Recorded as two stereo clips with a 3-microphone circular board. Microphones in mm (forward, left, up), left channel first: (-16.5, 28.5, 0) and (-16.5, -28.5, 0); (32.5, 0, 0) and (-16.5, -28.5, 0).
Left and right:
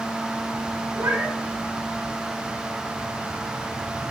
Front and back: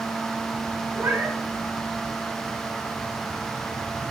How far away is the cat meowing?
About 1.7 m.